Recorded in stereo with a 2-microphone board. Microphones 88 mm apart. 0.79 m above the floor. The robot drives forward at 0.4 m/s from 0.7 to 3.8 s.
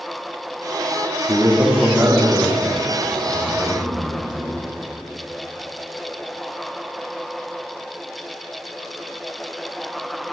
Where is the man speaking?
30° right (ahead or behind), 1.0 m; by 4.6 s 15° right (ahead or behind), 1.9 m.